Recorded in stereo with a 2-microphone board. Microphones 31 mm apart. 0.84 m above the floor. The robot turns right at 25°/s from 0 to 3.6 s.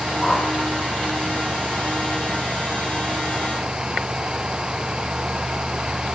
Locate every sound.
0.2 s a whoosh: 10° left (ahead or behind), 2 m; by 0.5 s 15° left (ahead or behind), 2 m